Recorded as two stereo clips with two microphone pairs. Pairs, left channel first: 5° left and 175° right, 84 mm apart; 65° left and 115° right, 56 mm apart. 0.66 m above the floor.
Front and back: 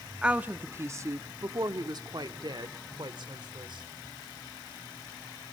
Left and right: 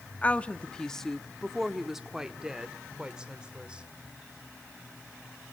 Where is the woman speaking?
115° left, 0.8 m; by 3.9 s 175° left, 2 m.